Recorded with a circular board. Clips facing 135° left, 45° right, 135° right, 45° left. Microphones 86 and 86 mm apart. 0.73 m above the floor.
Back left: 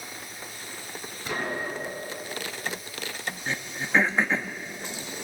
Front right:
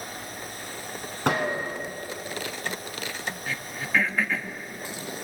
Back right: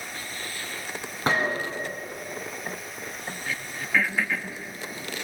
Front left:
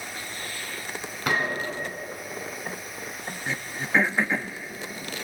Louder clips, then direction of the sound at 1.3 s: Front right 5 dB, back right 2 dB; 75° right.